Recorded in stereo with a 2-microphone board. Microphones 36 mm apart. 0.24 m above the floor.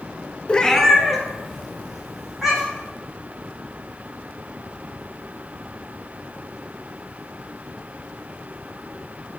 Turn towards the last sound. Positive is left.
turn(degrees=-10)  # may be behind; listen again after turning